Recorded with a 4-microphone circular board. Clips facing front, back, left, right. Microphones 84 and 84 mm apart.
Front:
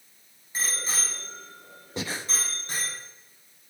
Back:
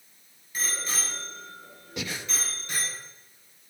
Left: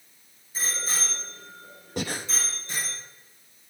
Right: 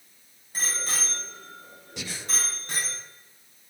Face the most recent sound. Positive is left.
turn(degrees=55)